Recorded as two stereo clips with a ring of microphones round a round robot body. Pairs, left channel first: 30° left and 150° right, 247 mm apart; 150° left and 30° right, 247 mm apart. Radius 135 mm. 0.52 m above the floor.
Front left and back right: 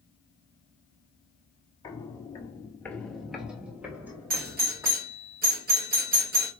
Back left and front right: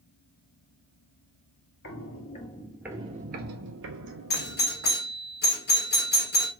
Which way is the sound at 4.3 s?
175° left.